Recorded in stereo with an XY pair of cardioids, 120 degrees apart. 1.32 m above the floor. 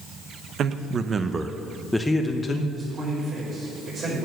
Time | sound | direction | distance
0.6 | a man speaking | 55° right | 1.0 m
2.7 | a man speaking | 40° right | 4 m